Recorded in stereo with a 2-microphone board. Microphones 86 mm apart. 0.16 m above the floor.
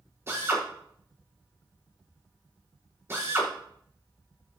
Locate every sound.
0.3 s a drill: 30° right (ahead or behind), 6 m